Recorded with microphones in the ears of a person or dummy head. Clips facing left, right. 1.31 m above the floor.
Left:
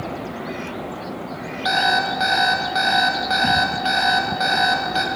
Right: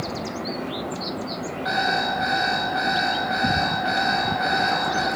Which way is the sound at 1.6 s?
60° left (ahead or behind).